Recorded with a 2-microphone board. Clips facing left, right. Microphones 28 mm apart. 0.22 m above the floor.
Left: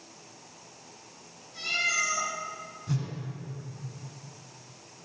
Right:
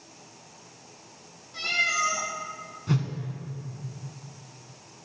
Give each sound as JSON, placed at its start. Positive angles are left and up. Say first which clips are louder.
{"t": 1.5, "sound": "a cat meowing", "louder": "right 2 dB", "side_deg": -45, "distance_m": 4.5}
{"t": 2.9, "sound": "a whoosh", "louder": "right 5 dB", "side_deg": -40, "distance_m": 2.0}